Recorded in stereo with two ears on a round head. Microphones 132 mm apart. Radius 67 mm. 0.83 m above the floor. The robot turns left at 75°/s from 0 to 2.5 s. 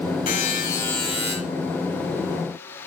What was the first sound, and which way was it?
A buzzer, 60° left.